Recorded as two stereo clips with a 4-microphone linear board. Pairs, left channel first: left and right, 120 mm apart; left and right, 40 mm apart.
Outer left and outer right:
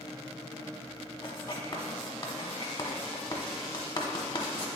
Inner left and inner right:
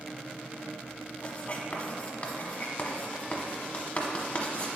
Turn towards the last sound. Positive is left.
turn(degrees=40)  # may be behind; listen again after turning